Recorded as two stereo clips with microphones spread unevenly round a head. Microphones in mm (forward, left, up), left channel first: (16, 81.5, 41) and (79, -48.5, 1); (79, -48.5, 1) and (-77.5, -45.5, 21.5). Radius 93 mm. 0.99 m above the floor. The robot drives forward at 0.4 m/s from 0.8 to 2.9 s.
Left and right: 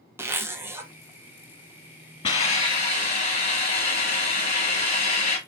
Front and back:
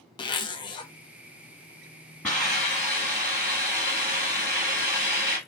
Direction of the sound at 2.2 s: 90° left.